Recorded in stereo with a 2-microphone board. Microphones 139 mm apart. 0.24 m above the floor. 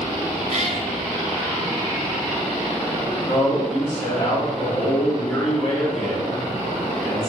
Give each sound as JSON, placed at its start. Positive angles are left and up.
{"t": 0.5, "sound": "a cat meowing", "side_deg": -60, "distance_m": 0.6}
{"t": 3.3, "sound": "a man speaking", "side_deg": 50, "distance_m": 2.0}